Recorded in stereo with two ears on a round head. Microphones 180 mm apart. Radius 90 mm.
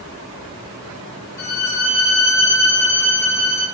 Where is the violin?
55° left (ahead or behind), 1.8 m.